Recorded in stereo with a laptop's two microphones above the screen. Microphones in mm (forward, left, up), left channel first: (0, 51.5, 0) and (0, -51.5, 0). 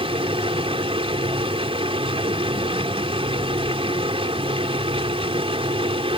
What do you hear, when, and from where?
0.0 s a machine running: 65° right (ahead or behind)